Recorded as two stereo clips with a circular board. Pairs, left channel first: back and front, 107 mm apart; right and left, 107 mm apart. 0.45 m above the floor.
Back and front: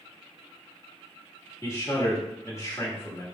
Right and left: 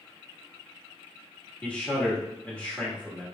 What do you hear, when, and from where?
1.6 s a man speaking: 155° right, 1.4 m